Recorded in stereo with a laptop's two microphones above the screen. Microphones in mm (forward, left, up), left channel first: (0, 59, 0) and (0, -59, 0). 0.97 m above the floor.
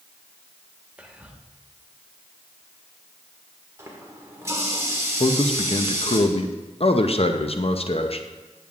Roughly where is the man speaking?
Left.